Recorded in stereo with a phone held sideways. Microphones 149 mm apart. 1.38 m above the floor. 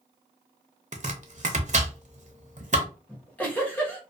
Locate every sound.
0.9 s chopping: 55° right (ahead or behind), 0.5 m
3.1 s a giggle: 10° left (ahead or behind), 0.9 m